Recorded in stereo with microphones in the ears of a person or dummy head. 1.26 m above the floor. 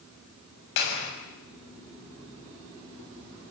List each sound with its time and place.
0.8 s a clap: 65° left (ahead or behind), 7 m